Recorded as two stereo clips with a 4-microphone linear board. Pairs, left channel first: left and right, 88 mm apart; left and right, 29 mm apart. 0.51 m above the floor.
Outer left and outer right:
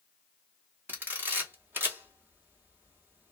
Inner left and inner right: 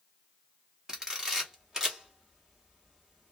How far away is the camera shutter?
About 0.9 m.